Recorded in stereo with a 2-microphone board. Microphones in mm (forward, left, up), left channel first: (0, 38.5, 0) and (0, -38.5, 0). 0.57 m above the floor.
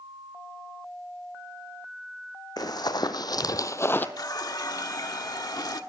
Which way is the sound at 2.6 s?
55° left (ahead or behind).